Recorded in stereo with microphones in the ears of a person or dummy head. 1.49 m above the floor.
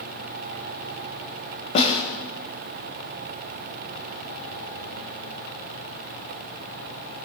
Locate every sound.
1.8 s a snare drum: 40° left (ahead or behind), 3.5 m